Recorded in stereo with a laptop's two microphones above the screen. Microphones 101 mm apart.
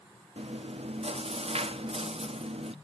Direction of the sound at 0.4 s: 85° right.